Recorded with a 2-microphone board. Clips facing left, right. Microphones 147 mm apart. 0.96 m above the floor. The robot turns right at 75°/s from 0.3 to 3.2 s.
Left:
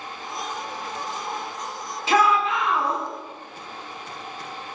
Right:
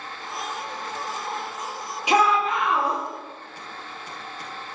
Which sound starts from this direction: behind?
A shout, at 2.1 s.